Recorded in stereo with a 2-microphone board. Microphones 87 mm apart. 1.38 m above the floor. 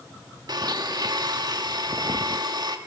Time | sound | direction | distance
0.5 | a blender | 50° right (ahead or behind) | 1.6 m